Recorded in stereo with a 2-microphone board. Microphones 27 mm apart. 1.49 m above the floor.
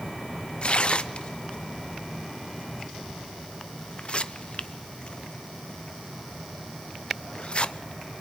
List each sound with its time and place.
0.6 s tearing paper: 45° left (ahead or behind), 0.8 m